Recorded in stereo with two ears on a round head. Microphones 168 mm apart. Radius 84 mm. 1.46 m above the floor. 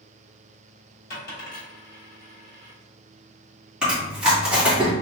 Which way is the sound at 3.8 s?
5° right (ahead or behind).